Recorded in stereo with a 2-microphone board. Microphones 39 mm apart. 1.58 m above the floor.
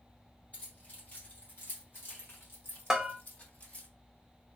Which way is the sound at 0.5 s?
45° left (ahead or behind).